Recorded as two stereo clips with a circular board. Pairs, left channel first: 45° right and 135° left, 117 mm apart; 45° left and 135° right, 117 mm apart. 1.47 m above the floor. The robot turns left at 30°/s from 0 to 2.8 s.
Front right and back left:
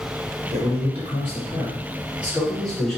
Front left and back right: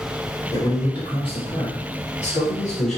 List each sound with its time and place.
0.5 s a man speaking: 105° left, 1.8 m; by 3.0 s 40° left, 1.8 m